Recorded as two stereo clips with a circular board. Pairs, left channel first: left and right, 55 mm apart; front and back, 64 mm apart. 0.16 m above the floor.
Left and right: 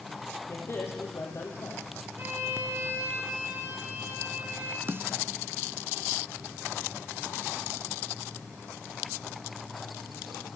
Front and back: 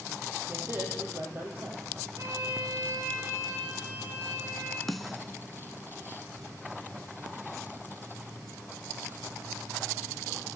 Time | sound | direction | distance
0.5 | a man speaking | 130° left | 6.5 m
2.2 | a violin | 140° right | 5.5 m
4.9 | a snare drum | 90° right | 1.1 m